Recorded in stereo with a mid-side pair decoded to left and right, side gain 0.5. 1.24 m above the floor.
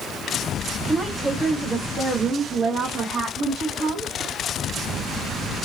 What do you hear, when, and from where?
0.8 s a woman speaking: 5° right, 1.2 m; by 4.1 s 65° right, 2.5 m